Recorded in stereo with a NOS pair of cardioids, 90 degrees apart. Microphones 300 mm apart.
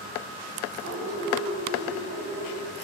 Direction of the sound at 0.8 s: 60° right.